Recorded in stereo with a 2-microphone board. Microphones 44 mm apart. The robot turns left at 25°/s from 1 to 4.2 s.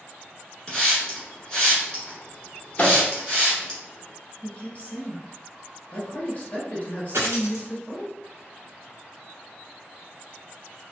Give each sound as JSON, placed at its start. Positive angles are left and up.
{"t": 0.7, "sound": "a hiss", "side_deg": 20, "distance_m": 1.6}
{"t": 2.8, "sound": "a microwave", "side_deg": 35, "distance_m": 1.3}
{"t": 4.4, "sound": "a woman speaking", "side_deg": 30, "distance_m": 1.2}
{"t": 7.1, "sound": "a dropped coin", "side_deg": -80, "distance_m": 1.0}